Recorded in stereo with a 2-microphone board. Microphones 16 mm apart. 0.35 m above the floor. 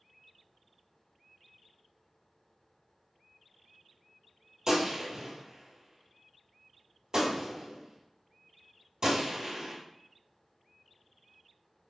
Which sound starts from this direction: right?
A gunshot, at 4.7 s.